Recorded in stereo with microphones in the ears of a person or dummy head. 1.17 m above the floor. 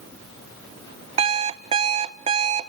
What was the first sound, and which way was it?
An alarm clock, 35° right (ahead or behind).